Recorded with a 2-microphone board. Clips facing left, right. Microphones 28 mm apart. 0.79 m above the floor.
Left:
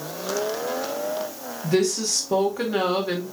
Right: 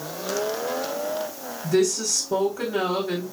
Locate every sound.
1.6 s a woman speaking: 50° left (ahead or behind), 1.5 m